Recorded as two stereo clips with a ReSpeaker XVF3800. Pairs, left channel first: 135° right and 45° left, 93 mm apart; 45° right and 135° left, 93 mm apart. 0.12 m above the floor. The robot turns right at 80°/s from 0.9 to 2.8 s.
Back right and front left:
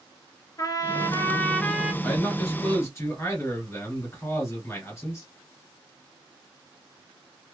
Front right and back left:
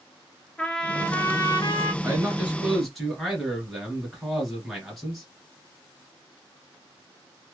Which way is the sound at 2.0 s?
160° left.